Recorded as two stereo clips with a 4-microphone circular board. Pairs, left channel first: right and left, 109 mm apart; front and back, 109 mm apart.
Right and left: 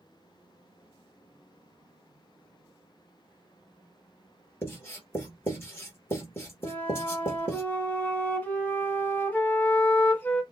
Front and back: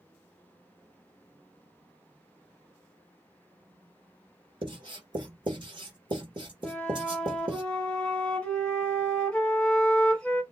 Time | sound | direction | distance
4.6 | writing | 150° right | 1.8 m
6.6 | a flute | 55° right | 1.3 m